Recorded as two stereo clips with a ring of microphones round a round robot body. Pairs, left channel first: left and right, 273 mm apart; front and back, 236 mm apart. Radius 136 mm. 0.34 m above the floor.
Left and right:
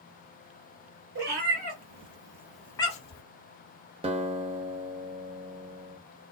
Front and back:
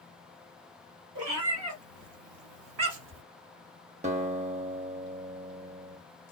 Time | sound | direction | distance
1.1 | a cat meowing | 145° right | 1.8 m
4.0 | a guitar | 145° right | 0.6 m